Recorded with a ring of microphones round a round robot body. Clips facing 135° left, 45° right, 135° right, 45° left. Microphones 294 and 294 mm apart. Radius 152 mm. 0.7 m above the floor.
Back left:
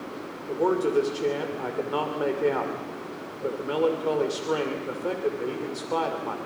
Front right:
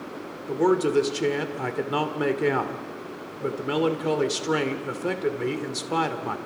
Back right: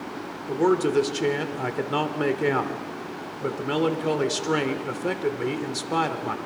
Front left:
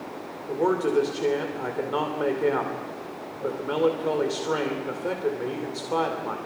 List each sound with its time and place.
0.5 s a man speaking: 95° right, 2.5 m